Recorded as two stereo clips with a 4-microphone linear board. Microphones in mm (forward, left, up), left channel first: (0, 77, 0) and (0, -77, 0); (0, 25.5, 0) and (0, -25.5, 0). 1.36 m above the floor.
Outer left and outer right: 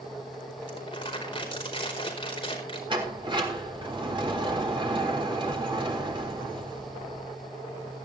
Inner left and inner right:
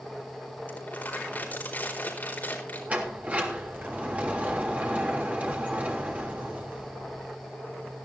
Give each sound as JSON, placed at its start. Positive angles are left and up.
{"t": 0.7, "sound": "crumpling", "side_deg": 35, "distance_m": 4.5}
{"t": 2.9, "sound": "a sliding door", "side_deg": -35, "distance_m": 3.0}